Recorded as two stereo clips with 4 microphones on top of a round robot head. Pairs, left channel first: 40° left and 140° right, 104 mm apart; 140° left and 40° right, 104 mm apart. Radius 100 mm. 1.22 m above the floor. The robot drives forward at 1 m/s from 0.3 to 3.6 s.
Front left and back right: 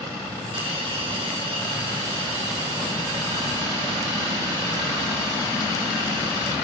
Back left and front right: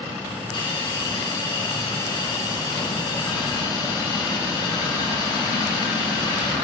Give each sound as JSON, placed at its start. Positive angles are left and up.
{"t": 0.5, "sound": "a hiss", "azimuth_deg": -175, "distance_m": 3.0}